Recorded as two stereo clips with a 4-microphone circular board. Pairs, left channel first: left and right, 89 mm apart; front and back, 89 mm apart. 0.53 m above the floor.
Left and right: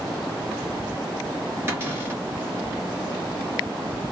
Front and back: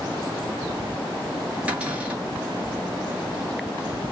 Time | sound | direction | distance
1.7 | a cupboard door | 120° right | 1.4 m